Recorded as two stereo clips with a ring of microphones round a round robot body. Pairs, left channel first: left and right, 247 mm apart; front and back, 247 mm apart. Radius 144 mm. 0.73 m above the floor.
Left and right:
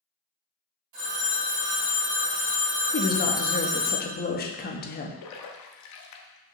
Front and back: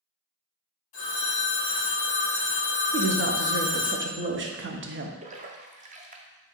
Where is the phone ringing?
65° right, 2.0 m.